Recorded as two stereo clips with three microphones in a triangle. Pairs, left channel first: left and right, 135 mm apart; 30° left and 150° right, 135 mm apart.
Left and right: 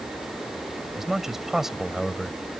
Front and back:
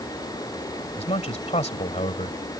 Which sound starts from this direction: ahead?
A man speaking, at 1.0 s.